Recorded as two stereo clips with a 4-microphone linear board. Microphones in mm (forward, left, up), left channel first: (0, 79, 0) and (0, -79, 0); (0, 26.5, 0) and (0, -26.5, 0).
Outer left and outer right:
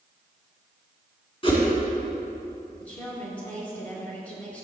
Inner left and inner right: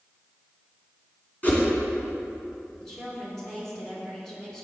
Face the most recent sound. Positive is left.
turn(degrees=10)  # may be behind; listen again after turning